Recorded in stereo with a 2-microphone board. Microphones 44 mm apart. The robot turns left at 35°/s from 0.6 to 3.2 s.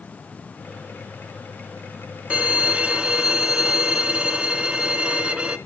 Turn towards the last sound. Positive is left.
turn(degrees=-150)